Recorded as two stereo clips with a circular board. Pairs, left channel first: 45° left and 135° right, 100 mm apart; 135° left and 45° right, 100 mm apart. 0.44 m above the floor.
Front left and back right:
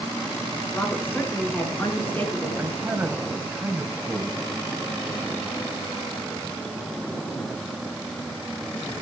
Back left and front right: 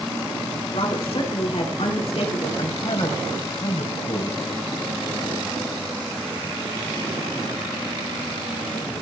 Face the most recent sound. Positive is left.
turn(degrees=155)